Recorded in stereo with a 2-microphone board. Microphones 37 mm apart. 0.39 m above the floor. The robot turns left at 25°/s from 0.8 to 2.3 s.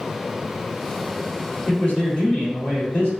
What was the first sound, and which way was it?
A man speaking, 40° left (ahead or behind).